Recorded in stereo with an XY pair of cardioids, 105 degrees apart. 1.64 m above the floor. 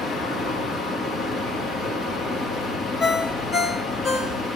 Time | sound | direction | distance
0.0 | a fan | 65° left | 2 m
3.0 | a ringtone | 55° left | 3.5 m